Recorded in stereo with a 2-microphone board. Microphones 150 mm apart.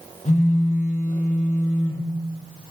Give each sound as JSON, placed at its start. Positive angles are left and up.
{"t": 0.2, "sound": "a phone buzzing", "side_deg": 50, "distance_m": 4.5}